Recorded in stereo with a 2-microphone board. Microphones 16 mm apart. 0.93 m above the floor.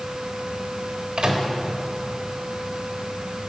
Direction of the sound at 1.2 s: 70° right (ahead or behind).